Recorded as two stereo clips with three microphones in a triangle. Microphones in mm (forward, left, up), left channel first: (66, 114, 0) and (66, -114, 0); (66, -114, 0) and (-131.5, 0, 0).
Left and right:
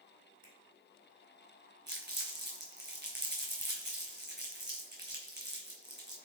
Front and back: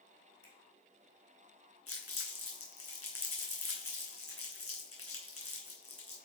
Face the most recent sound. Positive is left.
turn(degrees=-45)